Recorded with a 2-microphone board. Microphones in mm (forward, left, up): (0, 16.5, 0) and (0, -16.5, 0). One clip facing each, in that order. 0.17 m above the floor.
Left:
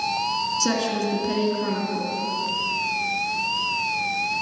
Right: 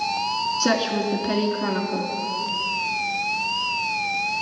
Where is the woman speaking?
25° right (ahead or behind), 2.0 m.